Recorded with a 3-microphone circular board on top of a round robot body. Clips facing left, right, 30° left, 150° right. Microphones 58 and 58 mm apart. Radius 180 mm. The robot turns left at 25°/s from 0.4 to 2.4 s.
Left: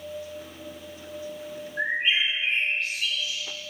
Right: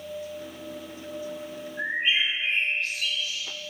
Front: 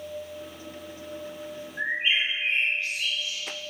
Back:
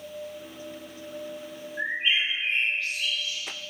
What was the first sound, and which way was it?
A bird, 115° left.